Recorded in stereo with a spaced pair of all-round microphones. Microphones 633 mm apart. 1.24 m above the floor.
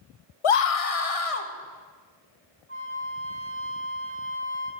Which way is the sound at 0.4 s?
50° left (ahead or behind).